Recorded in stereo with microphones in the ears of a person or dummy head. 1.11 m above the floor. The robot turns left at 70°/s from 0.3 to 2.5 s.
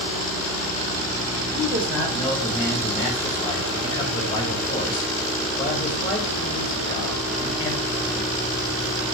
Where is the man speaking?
135° right, 1.5 m; by 8.1 s 160° left, 1.5 m.